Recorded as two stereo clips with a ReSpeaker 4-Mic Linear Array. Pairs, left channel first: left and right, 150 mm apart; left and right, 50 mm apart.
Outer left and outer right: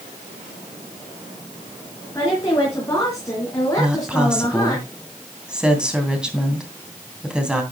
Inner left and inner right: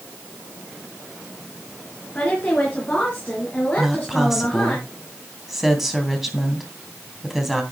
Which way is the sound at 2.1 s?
20° left (ahead or behind).